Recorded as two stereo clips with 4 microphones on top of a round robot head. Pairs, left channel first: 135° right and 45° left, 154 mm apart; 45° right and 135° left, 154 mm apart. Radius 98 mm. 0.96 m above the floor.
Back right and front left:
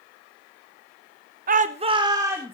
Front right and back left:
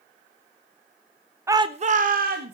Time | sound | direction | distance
1.5 | a shout | 65° left | 0.6 m